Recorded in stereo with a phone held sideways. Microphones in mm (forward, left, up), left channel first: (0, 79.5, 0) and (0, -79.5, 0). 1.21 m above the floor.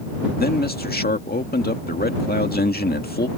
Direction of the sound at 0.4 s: 75° left (ahead or behind).